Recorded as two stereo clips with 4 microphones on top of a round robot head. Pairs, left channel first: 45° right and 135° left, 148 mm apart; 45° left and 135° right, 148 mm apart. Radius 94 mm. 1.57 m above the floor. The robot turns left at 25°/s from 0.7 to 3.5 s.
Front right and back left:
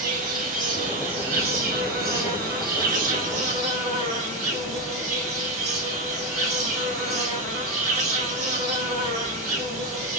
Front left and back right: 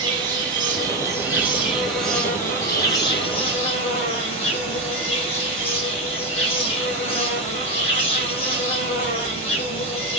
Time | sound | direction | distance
0.0 | an insect | 165° left | 2 m